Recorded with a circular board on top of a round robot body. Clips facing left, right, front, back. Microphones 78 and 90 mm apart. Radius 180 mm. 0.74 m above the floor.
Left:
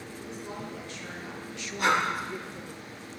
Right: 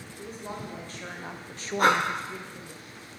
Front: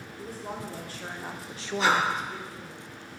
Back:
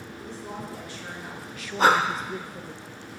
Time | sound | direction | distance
0.2 | a woman speaking | 40° right | 2.5 m
1.8 | breathing | 135° right | 0.8 m